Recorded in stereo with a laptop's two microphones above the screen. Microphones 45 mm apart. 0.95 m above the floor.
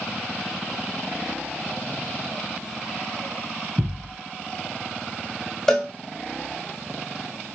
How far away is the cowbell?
About 1.5 m.